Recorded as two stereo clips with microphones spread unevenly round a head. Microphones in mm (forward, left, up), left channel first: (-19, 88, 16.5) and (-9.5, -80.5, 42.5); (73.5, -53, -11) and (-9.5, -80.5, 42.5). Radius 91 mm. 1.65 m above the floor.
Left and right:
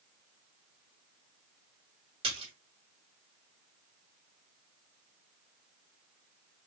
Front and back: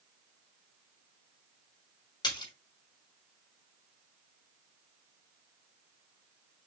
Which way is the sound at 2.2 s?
40° right.